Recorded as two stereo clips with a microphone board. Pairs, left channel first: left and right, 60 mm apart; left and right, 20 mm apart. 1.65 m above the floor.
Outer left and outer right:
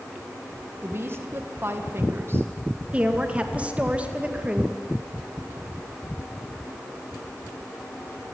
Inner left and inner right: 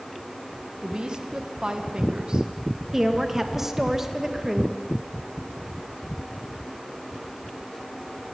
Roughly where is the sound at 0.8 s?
Right.